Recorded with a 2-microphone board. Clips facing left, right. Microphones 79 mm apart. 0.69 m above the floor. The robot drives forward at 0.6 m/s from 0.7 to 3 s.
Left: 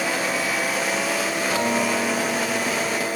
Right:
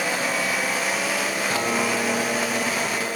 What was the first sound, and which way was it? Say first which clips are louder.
A guitar: left 2 dB; 80° right.